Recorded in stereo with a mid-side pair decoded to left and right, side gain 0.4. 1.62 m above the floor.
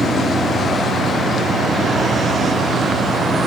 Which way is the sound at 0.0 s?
10° left.